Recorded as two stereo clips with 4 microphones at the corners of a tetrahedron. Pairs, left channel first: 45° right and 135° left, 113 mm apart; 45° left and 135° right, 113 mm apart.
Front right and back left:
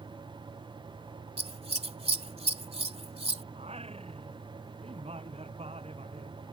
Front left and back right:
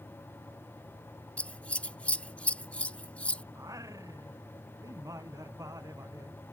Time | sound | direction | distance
1.4 | scissors | 120° left | ?
3.5 | singing | 165° left | ?